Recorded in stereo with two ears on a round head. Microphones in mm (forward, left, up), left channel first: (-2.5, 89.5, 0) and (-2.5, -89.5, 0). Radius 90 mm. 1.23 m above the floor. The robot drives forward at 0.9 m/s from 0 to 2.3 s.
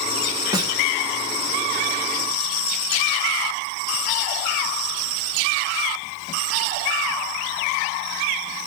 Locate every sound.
0.5 s a snare drum: 20° right (ahead or behind), 1.2 m; by 0.7 s 25° right (ahead or behind), 1.0 m